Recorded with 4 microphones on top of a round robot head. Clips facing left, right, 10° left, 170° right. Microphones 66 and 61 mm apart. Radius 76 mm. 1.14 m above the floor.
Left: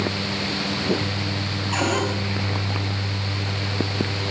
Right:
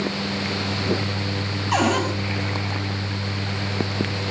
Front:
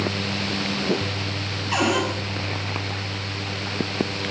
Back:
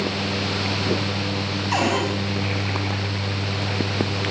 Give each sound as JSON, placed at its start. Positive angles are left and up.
{"t": 1.7, "sound": "a cupboard door", "azimuth_deg": -95, "distance_m": 8.0}